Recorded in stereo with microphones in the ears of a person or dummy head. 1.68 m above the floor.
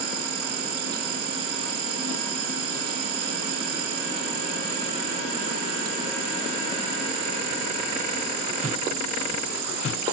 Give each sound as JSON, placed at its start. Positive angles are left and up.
{"t": 0.0, "sound": "an insect", "side_deg": -60}